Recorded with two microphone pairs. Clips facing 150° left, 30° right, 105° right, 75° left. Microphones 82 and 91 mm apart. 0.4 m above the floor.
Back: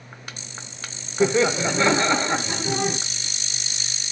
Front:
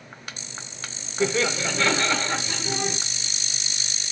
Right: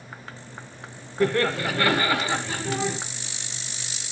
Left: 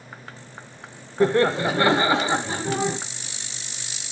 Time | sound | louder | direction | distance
1.2 | laughter | back 5 dB, left 4 dB | 105° left | 0.8 m